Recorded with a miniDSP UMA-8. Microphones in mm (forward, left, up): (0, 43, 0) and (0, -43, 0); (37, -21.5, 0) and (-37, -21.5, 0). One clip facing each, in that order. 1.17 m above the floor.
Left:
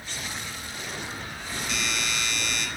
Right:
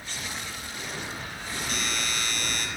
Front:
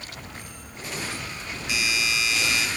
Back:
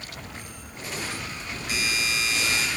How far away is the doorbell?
About 5 m.